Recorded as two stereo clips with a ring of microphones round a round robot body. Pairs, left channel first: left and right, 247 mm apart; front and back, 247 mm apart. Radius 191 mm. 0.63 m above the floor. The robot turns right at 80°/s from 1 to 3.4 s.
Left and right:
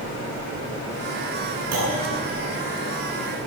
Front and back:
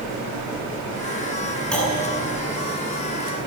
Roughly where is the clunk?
Right.